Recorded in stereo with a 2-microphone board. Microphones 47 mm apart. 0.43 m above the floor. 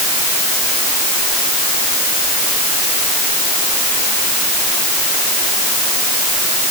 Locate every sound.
Only background noise.